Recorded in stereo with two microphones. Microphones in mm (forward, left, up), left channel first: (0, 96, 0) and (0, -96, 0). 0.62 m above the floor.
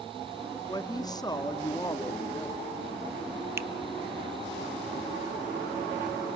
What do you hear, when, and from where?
0.7 s a woman speaking: 20° left (ahead or behind), 0.6 m
3.6 s a finger snap: 15° right (ahead or behind), 0.5 m